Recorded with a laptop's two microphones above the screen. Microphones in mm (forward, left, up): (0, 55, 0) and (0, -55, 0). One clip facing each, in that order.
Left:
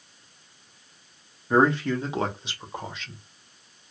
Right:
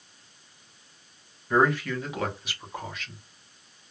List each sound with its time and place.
1.5 s a man speaking: 25° left (ahead or behind), 0.6 m; by 3.2 s 20° left (ahead or behind), 1.1 m